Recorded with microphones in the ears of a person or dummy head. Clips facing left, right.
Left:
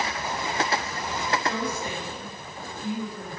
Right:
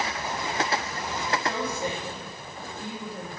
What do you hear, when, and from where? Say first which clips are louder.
1.4 s a woman speaking: even; 25° right (ahead or behind), 6 m